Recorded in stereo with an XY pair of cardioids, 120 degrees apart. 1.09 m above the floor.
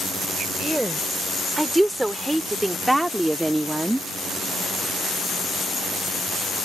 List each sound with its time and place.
0.6 s a woman speaking: 5° right